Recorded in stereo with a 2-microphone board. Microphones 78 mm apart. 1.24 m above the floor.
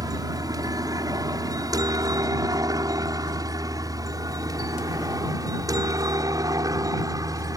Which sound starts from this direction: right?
A helicopter, at 0.0 s.